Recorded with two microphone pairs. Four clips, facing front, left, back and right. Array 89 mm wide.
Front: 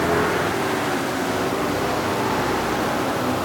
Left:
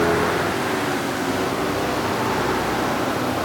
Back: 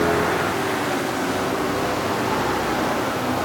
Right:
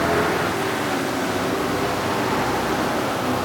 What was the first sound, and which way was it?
Only background noise.